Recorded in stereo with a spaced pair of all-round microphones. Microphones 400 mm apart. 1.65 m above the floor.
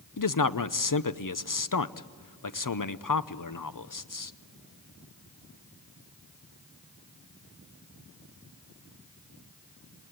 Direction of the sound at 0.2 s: 50° left (ahead or behind).